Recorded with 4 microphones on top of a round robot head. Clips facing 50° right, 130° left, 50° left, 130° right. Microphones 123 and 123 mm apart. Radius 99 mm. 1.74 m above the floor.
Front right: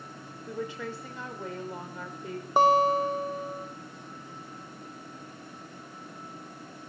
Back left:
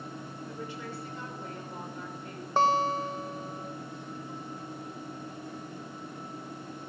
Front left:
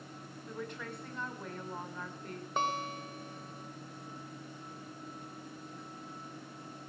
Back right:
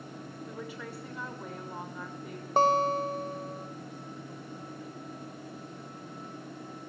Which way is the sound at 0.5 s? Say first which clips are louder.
Front right 7 dB, front left 1 dB; 45° right.